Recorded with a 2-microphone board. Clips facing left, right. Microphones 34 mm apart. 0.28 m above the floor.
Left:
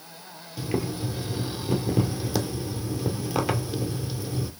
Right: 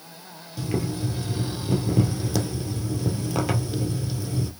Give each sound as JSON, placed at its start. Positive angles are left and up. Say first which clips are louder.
{"t": 0.6, "sound": "boiling", "louder": "right 1 dB", "side_deg": 5, "distance_m": 0.9}